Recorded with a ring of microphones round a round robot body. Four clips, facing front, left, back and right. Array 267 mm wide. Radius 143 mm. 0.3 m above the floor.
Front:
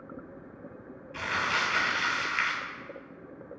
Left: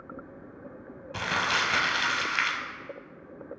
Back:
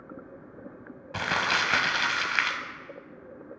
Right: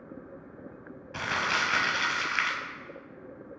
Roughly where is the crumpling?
Behind.